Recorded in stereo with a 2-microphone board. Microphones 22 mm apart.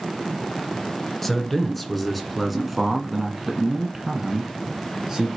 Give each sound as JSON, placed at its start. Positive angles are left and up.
{"t": 1.2, "sound": "a man speaking", "side_deg": 5, "distance_m": 1.9}